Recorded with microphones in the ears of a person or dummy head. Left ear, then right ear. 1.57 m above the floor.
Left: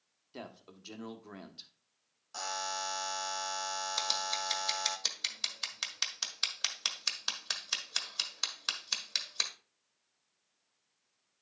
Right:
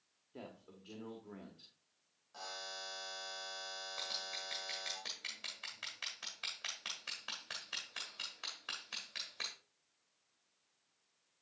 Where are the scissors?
80° left, 1.5 m.